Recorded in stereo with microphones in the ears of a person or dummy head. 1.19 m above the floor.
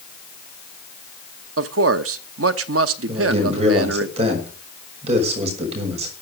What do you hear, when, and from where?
1.6 s a man speaking: 85° right, 1.0 m
3.1 s a man speaking: 40° right (ahead or behind), 5 m